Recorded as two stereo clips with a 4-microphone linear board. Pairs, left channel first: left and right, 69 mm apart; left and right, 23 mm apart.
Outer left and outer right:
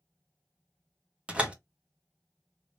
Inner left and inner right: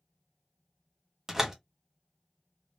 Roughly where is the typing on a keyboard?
I don't hear typing on a keyboard.